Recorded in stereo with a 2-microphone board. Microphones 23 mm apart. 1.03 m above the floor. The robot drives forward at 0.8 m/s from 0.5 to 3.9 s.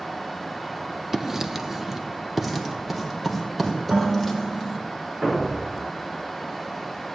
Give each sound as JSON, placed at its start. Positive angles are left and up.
{"t": 1.1, "sound": "writing", "side_deg": -15, "distance_m": 0.7}
{"t": 3.9, "sound": "dishes clattering", "side_deg": -75, "distance_m": 6.0}
{"t": 5.2, "sound": "a thud", "side_deg": -40, "distance_m": 4.0}